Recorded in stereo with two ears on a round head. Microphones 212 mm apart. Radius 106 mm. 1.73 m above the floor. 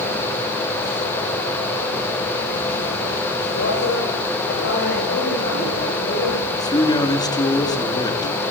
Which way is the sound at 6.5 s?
15° left (ahead or behind).